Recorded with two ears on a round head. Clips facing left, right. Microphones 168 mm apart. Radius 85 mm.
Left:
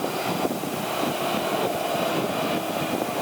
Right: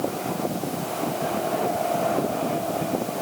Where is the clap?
I don't hear a clap.